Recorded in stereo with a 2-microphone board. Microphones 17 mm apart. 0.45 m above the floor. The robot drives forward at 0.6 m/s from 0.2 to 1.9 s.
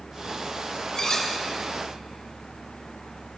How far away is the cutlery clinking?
About 1.1 m.